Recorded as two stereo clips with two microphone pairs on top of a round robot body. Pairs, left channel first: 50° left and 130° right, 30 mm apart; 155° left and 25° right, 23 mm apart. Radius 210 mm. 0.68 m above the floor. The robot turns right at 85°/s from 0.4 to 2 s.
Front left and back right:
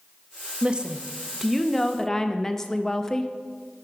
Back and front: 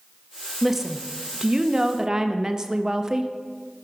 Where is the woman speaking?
110° right, 0.9 m; by 3.3 s 10° left, 0.9 m.